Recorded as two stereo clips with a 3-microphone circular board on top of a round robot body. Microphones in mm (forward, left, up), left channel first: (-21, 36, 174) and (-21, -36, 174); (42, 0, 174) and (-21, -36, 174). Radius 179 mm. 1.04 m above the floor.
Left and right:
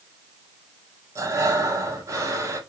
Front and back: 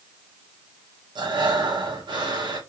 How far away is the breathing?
About 3 m.